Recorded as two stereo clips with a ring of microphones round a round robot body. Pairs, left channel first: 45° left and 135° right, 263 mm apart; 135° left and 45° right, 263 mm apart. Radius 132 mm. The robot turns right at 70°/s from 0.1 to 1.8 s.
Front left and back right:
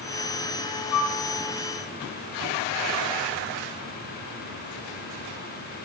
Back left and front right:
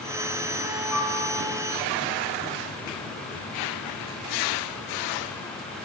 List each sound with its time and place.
0.9 s a flute: 35° left, 1.2 m; by 1.2 s 55° left, 1.2 m